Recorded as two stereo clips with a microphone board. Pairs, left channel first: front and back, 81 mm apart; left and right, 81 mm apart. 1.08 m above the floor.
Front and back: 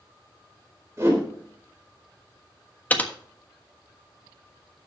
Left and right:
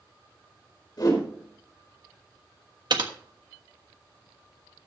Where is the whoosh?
120° left, 4 m.